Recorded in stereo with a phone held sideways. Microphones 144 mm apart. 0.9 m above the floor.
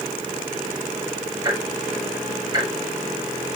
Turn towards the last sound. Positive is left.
turn(degrees=-25)  # may be behind; listen again after turning